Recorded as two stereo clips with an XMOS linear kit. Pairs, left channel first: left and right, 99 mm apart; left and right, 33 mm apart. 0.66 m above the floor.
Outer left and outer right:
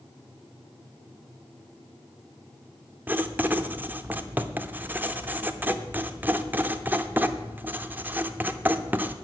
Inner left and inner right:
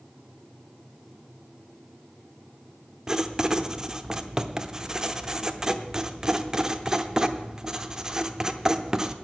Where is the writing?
20° right (ahead or behind), 0.7 m.